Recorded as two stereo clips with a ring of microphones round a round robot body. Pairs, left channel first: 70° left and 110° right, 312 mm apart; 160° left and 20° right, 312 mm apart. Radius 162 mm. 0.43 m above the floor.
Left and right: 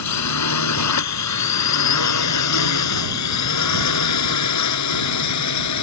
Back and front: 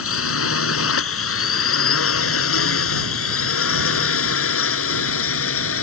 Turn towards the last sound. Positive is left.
turn(degrees=105)